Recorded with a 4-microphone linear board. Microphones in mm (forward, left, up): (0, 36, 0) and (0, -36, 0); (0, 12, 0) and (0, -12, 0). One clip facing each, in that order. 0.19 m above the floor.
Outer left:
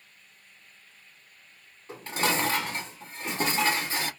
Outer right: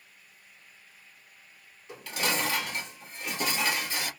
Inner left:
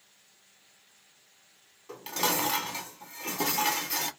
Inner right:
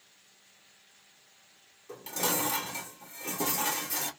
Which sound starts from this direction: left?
Dishes clattering, at 1.9 s.